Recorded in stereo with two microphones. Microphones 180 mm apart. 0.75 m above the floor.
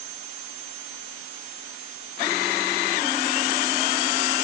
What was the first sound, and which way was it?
Only background noise.